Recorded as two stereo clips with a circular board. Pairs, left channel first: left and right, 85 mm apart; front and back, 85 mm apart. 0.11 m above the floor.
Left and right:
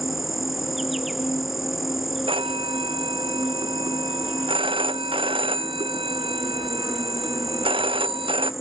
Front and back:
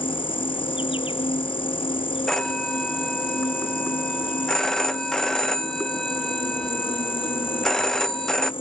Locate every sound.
0.0 s an insect: straight ahead
2.3 s a phone ringing: 85° right